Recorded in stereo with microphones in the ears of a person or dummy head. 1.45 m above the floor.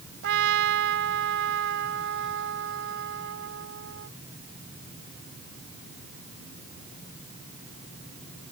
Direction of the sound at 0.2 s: 70° right (ahead or behind).